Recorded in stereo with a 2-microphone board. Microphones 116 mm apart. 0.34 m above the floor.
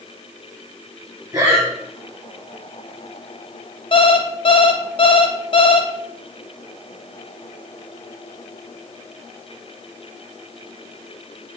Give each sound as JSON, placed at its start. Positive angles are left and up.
{"t": 1.3, "sound": "breathing", "side_deg": -30, "distance_m": 1.9}
{"t": 3.9, "sound": "an alarm clock", "side_deg": 45, "distance_m": 0.6}